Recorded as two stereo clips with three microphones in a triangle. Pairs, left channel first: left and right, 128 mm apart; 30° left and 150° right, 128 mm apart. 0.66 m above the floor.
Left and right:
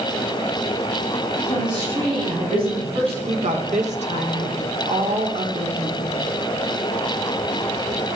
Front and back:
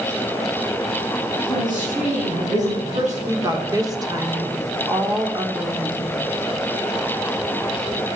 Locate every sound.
1.5 s a woman speaking: 145° right, 7 m; by 3.2 s 130° right, 5.5 m
3.3 s a woman speaking: 90° right, 2.5 m